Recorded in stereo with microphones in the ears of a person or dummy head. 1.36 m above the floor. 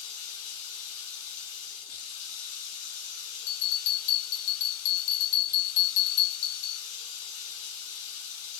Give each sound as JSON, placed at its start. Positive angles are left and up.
{"t": 0.0, "sound": "running water", "side_deg": 85, "distance_m": 1.0}
{"t": 3.5, "sound": "a bell", "side_deg": 65, "distance_m": 0.9}